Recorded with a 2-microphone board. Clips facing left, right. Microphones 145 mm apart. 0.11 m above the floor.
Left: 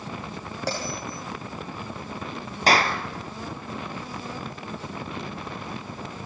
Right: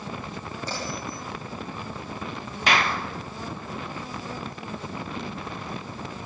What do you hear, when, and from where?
0.7 s a bell: 75° left (ahead or behind), 8.5 m
2.7 s a clap: 35° left (ahead or behind), 1.6 m